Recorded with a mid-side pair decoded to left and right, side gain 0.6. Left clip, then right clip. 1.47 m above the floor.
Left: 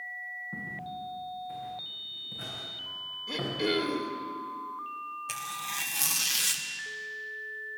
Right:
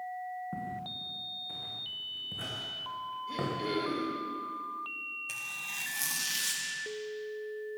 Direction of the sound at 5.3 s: 30° left.